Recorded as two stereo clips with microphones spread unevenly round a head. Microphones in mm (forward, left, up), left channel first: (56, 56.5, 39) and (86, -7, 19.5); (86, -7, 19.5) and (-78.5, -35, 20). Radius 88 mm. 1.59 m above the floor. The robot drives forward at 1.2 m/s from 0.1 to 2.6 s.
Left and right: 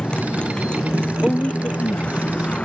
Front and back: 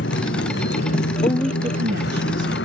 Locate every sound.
0.0 s a motorcycle: 40° left; by 2.6 s 45° left
1.2 s a woman speaking: 50° left; by 2.5 s 170° left